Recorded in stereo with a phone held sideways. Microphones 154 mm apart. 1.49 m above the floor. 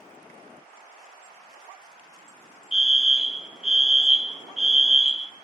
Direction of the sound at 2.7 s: 5° right (ahead or behind).